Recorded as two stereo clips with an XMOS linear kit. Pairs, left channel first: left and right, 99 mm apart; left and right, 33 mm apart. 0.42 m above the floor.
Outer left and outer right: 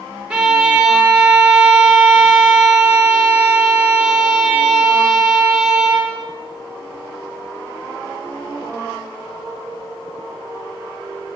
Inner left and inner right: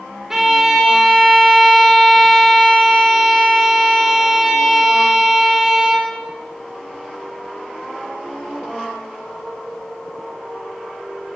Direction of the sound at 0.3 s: 10° right (ahead or behind).